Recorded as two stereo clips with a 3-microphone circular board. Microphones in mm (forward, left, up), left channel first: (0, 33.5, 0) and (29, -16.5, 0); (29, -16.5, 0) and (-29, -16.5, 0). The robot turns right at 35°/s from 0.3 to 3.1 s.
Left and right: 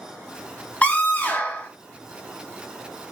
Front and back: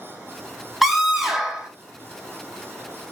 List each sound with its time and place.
0.8 s a scream: 95° left, 0.8 m; by 1.7 s 125° left, 0.8 m